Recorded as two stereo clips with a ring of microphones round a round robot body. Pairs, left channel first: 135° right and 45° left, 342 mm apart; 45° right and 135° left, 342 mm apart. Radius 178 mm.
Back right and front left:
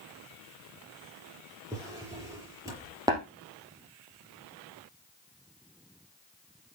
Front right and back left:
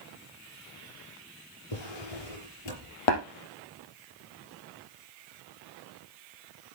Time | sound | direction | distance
1.7 | a drawer | 35° right | 5.5 m
3.1 | tapping | 35° right | 3.5 m